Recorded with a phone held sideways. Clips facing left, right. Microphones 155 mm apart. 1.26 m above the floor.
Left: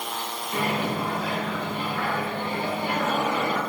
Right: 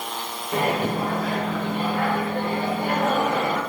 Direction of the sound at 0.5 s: 50° right (ahead or behind).